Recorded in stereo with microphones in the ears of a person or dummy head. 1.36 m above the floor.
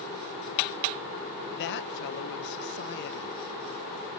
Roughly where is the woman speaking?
Left.